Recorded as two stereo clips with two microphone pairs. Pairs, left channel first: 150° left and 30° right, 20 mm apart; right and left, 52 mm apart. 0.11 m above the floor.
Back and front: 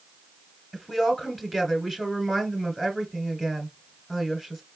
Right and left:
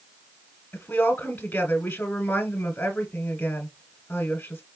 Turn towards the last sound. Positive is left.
turn(degrees=-140)